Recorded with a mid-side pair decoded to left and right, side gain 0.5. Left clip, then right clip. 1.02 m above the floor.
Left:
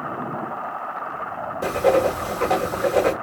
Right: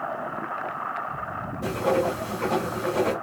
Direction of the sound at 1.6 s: 55° left.